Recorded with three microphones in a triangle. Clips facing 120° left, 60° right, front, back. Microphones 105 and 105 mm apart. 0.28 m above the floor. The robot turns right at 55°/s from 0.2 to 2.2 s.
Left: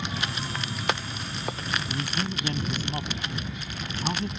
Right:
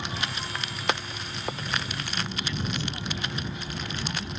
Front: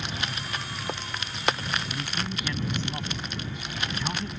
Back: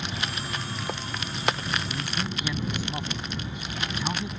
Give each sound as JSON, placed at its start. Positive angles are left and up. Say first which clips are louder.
{"t": 0.0, "sound": "an aircraft", "louder": "left 1 dB, back 1 dB", "azimuth_deg": 100}
{"t": 1.9, "sound": "a man speaking", "louder": "left 3 dB, back 1 dB", "azimuth_deg": 85}